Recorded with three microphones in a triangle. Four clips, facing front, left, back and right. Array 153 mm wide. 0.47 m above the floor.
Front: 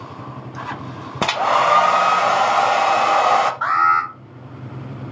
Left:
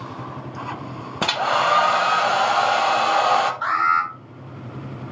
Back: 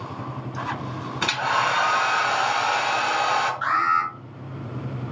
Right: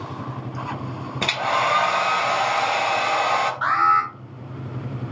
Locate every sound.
1.2 s a hair dryer: 20° left, 0.8 m
3.6 s an alarm: 20° right, 3.5 m